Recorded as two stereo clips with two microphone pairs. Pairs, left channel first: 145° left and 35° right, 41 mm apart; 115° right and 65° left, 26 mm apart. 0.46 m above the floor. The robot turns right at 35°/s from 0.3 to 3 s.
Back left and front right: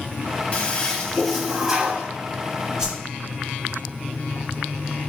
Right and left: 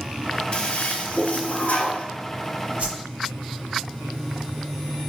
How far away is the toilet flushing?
About 0.6 m.